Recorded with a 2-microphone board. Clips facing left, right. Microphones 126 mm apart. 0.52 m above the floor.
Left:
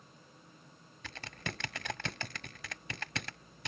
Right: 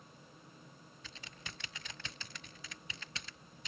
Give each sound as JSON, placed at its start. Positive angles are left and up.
{"t": 1.0, "sound": "typing on a keyboard", "side_deg": 65}